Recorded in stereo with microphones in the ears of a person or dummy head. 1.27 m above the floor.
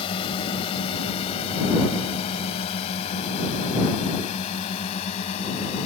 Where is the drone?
25° left (ahead or behind); by 5.9 s 30° left (ahead or behind).